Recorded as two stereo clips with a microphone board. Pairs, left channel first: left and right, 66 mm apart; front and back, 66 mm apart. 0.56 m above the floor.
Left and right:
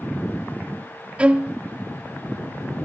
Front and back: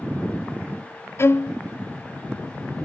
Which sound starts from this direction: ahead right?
A violin, at 1.2 s.